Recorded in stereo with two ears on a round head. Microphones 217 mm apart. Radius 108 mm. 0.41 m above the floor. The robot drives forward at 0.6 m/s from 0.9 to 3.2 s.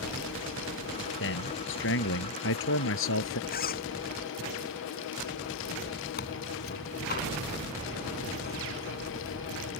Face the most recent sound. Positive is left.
turn(degrees=40)  # may be behind; listen again after turning